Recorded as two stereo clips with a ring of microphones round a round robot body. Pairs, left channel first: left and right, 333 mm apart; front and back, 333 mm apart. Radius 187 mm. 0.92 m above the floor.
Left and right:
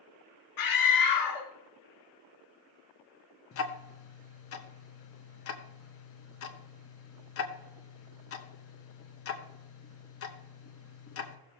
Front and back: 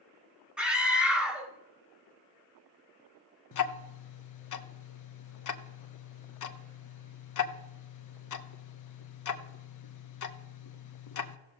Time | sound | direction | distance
0.6 | a scream | 95° left | 1.4 m
3.5 | ticking | 35° left | 1.0 m